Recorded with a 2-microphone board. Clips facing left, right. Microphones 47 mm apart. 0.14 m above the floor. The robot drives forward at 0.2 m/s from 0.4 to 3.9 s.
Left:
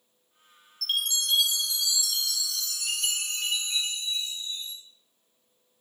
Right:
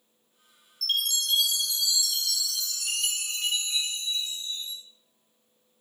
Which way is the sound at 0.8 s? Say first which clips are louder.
Right 1 dB; 5° left (ahead or behind).